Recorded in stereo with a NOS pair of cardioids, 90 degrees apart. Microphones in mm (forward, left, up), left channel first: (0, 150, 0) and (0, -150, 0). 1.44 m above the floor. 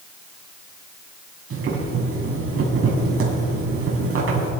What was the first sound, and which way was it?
Boiling, 45° right.